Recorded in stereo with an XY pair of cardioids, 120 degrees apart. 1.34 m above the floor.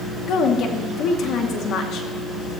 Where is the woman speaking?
65° left, 2 m.